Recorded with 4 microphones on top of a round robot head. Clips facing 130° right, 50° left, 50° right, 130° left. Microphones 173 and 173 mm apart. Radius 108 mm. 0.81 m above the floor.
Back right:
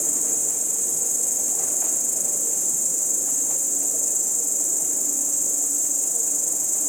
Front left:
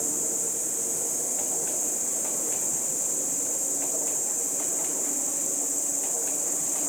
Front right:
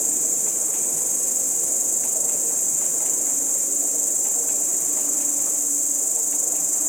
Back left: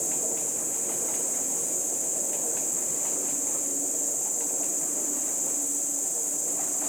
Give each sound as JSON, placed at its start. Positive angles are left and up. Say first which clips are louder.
{"t": 0.0, "sound": "an insect", "louder": "front left 1 dB, even", "azimuth_deg": -75, "distance_m": 0.8}